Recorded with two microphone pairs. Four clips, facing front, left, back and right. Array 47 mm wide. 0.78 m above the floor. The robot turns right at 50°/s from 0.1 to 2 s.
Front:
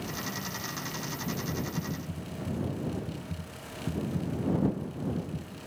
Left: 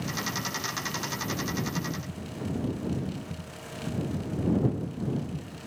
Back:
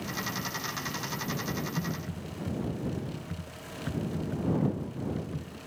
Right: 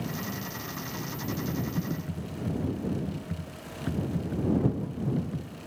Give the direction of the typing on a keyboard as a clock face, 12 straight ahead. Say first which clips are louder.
Even, back 1 dB; 6 o'clock.